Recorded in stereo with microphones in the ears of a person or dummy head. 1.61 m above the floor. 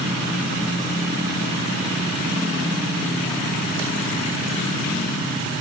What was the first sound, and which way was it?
Only background noise.